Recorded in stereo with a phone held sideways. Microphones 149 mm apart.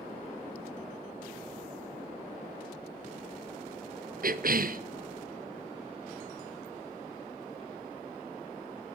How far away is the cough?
About 0.5 m.